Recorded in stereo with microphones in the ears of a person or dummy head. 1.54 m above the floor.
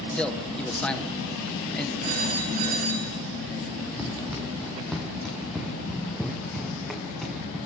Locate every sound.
0.1 s a man speaking: 5° left (ahead or behind), 1.4 m
2.0 s a phone ringing: 40° right (ahead or behind), 5.5 m
4.0 s running footsteps: centre (ahead or behind), 4.5 m; by 7.6 s 5° left (ahead or behind), 7 m